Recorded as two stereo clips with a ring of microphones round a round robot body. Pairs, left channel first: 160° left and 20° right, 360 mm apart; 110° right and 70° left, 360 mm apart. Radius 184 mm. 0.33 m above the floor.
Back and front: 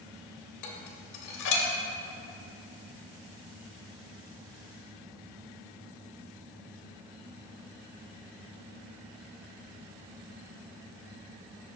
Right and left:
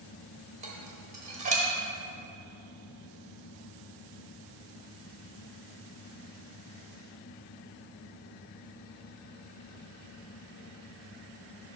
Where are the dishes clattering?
135° left, 1.1 m.